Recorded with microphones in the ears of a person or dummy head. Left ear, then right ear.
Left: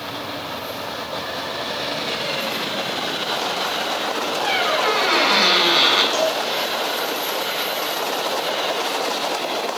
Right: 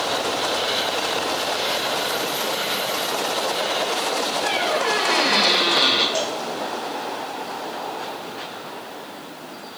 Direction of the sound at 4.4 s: 60° left (ahead or behind).